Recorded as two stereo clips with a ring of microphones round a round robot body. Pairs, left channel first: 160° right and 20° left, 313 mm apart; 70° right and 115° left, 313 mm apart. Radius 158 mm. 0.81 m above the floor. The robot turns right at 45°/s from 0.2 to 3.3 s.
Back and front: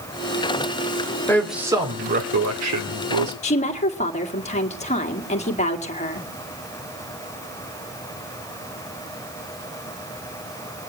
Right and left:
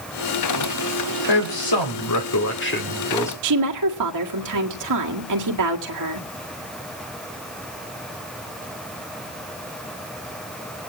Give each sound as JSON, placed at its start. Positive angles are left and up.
{"t": 1.3, "sound": "a man speaking", "azimuth_deg": -75, "distance_m": 2.0}
{"t": 3.4, "sound": "a woman speaking", "azimuth_deg": 135, "distance_m": 1.8}